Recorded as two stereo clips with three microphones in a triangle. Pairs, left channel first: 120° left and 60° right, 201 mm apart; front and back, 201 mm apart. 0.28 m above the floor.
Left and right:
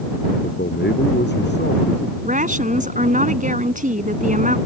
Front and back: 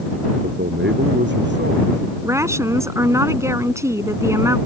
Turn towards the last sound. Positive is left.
turn(degrees=-105)